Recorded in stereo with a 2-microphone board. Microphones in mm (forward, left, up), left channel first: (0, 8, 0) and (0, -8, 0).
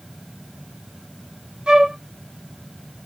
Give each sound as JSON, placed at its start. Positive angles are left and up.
{"t": 1.7, "sound": "a flute", "side_deg": -55, "distance_m": 0.9}